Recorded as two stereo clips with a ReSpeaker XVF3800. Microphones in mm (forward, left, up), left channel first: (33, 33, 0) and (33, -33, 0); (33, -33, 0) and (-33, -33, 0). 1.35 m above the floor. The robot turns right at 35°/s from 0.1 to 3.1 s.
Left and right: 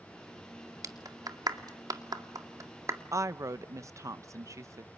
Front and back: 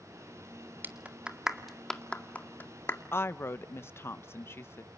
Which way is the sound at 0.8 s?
120° right.